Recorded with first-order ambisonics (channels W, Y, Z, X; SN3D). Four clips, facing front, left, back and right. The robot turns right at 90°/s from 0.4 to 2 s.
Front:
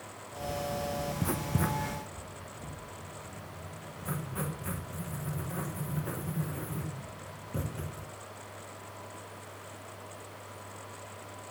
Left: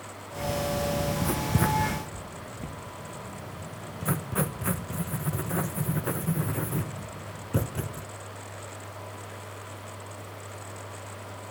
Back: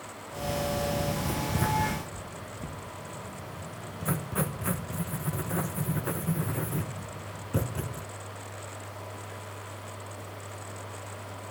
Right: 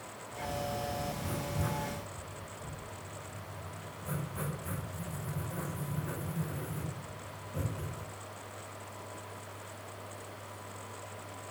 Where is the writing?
50° left, 0.9 m; by 8.0 s 120° left, 0.9 m.